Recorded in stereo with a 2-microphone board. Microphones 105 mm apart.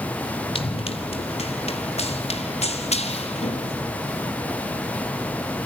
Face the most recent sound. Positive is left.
turn(degrees=80)